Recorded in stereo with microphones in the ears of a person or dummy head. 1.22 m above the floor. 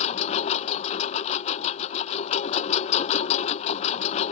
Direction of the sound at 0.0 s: 40° left (ahead or behind).